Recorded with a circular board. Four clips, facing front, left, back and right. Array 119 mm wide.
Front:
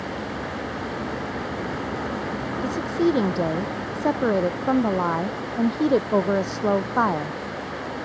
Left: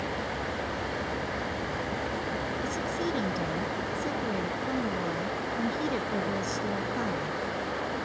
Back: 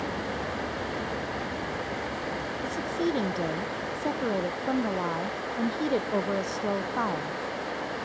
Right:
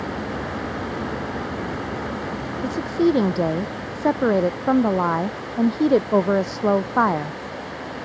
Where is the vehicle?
80° right; by 8.1 s 25° left.